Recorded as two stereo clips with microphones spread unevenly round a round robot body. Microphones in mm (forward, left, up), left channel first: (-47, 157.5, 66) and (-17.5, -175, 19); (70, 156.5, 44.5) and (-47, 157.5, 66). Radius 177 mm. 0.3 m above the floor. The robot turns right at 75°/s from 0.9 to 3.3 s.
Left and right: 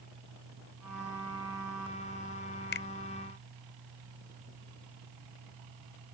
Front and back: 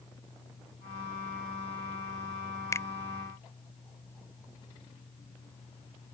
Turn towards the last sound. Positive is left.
turn(degrees=85)